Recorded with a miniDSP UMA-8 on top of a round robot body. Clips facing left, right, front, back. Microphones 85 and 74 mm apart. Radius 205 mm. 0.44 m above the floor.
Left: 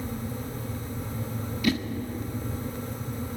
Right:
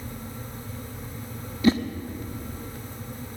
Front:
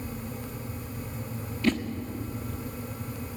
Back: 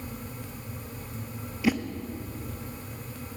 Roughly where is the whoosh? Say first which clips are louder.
Right 6 dB, even; right.